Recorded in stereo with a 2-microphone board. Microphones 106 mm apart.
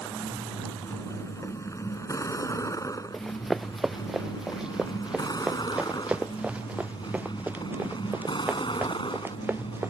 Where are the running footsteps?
Centre (ahead or behind); by 9.9 s 20° right (ahead or behind).